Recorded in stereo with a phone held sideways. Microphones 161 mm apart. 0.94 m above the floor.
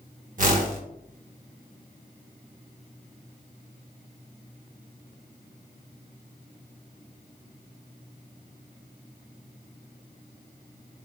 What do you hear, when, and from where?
0.4 s a whoosh: 55° right (ahead or behind), 0.8 m